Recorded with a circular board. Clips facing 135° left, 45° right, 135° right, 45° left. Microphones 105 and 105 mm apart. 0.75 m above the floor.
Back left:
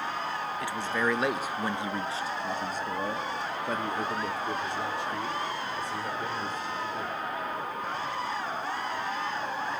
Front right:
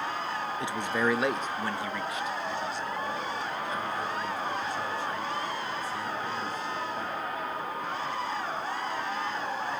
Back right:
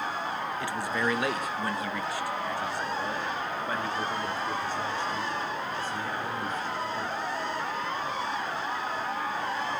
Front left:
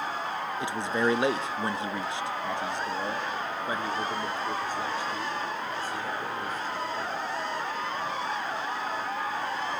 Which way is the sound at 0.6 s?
5° right.